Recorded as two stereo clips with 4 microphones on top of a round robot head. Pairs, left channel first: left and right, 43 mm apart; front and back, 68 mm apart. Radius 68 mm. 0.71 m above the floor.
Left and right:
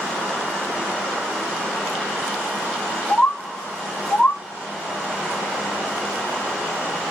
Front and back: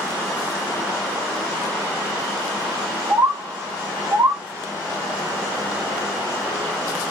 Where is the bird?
135° left, 0.8 m.